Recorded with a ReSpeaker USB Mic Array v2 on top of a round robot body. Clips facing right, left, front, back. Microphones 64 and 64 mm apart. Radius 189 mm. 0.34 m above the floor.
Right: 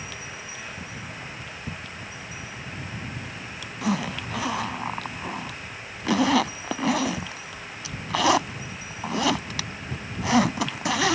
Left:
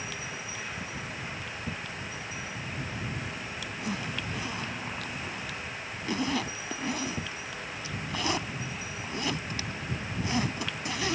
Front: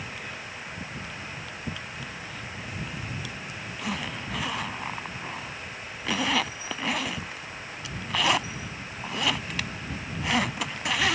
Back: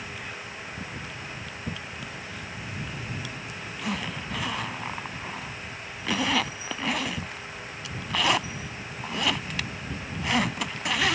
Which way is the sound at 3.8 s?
90° right.